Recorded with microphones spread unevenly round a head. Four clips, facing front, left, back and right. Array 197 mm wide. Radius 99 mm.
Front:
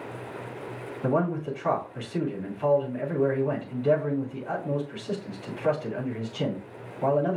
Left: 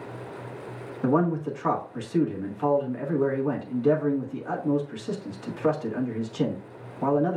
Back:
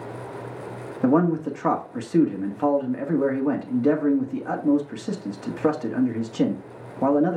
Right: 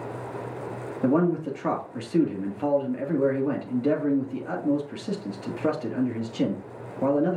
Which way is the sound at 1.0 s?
155° right.